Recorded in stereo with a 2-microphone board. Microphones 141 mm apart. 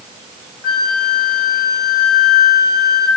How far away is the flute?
About 3 m.